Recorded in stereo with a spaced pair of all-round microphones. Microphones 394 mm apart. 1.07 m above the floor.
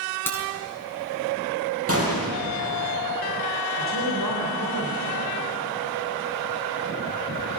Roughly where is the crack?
Centre.